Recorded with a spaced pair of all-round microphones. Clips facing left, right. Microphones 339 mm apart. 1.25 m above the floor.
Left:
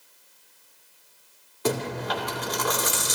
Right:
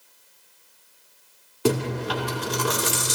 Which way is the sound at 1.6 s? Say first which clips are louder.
Right 4 dB; 40° right (ahead or behind).